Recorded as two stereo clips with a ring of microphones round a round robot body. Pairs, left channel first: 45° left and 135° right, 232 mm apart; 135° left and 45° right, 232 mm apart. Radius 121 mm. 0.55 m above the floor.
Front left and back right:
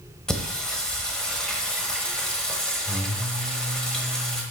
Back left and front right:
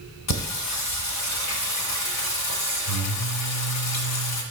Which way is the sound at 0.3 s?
130° left.